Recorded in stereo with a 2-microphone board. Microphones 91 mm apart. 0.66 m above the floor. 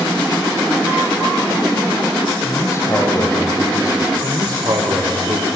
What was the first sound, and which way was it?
A man speaking, 30° left (ahead or behind).